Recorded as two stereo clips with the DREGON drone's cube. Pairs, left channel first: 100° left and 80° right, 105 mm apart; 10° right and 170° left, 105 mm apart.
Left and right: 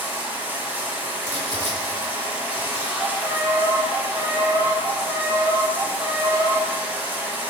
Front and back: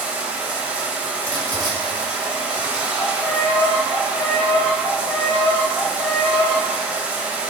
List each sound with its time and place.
0.0 s running water: 125° right, 0.8 m
1.2 s crumpling: 55° left, 1.8 m
3.0 s a violin: 75° right, 0.6 m